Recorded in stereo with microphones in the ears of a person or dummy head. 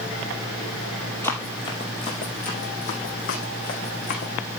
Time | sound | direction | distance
1.2 | running footsteps | 10° left (ahead or behind) | 2 m